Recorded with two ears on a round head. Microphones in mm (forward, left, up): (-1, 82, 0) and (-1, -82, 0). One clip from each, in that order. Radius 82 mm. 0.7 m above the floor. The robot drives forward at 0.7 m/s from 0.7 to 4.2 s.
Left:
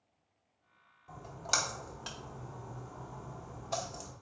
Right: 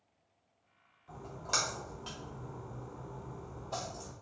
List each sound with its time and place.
1.1 s a splash: 30° left (ahead or behind), 1.5 m; by 4.1 s 40° left (ahead or behind), 1.1 m